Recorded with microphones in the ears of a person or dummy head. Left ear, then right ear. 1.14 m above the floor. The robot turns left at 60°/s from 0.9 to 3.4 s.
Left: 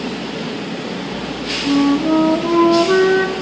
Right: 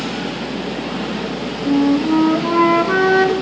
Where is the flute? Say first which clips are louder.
Even; 40° left, 1.3 m; by 3.3 s 60° right, 1.3 m.